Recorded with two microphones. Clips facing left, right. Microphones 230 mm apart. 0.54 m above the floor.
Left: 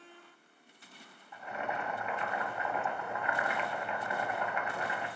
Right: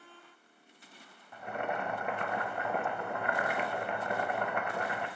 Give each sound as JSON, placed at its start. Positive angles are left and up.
{"t": 1.3, "sound": "boiling", "side_deg": -55, "distance_m": 0.5}